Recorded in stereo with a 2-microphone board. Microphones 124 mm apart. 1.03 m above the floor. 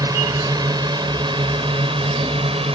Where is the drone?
30° right (ahead or behind); by 2.8 s 50° right (ahead or behind).